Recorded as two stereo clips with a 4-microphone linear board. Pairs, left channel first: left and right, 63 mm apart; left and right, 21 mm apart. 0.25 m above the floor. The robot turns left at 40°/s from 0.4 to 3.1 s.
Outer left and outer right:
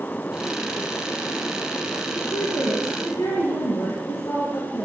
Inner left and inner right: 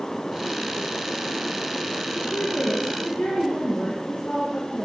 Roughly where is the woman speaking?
Behind left.